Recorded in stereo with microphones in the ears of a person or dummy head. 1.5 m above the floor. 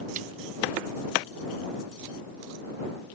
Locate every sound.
0.2 s a snare drum: 40° right (ahead or behind)